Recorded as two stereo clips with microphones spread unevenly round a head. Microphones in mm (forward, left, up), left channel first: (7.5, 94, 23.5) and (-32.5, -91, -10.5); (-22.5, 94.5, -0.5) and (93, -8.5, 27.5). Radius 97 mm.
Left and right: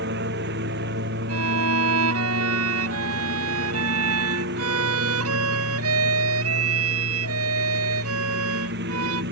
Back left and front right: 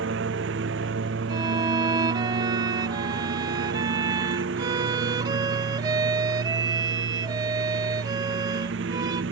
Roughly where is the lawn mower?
Ahead right.